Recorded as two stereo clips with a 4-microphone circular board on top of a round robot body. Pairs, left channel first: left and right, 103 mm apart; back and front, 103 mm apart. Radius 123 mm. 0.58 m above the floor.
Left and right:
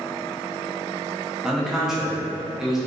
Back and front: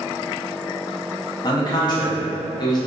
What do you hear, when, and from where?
1.4 s a man speaking: 175° right, 0.7 m